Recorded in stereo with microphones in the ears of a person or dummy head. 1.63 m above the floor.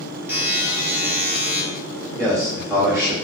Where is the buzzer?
10° right (ahead or behind), 1.6 m.